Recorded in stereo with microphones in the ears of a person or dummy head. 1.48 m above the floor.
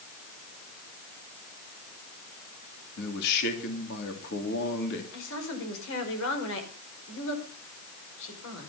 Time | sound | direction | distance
3.0 | a man speaking | 60° left (ahead or behind) | 3 m
5.1 | a woman speaking | 70° left (ahead or behind) | 5.5 m